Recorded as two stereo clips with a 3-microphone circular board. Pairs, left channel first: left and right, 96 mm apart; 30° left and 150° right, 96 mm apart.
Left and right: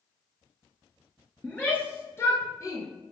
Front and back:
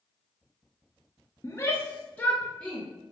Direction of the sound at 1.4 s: 30° left.